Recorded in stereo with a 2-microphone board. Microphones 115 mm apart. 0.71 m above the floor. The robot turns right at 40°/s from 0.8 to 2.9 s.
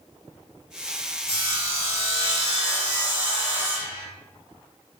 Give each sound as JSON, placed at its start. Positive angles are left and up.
{"t": 1.3, "sound": "sawing", "azimuth_deg": -90, "distance_m": 1.3}